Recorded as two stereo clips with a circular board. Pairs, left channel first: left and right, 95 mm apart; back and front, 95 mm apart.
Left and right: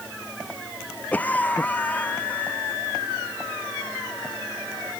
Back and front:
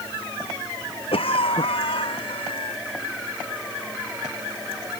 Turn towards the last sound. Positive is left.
turn(degrees=165)